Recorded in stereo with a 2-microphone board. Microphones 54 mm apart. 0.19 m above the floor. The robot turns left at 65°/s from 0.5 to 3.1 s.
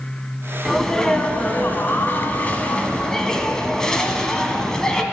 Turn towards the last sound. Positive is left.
turn(degrees=20)